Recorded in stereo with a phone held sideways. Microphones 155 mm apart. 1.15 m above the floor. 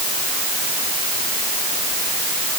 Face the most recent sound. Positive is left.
No sound to turn to.